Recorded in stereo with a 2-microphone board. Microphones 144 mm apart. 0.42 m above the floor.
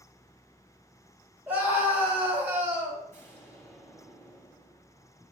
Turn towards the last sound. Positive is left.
turn(degrees=20)  # may be behind; listen again after turning